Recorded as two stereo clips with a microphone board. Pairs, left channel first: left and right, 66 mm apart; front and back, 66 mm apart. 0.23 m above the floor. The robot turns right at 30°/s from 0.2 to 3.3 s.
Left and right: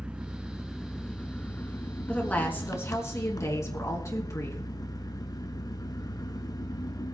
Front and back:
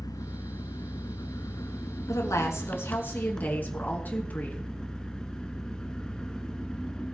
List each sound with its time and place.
0.0 s an engine running: 15° right, 0.8 m; by 7.1 s 75° left, 0.8 m
2.1 s a woman speaking: 20° left, 3 m; by 4.6 s 60° left, 3 m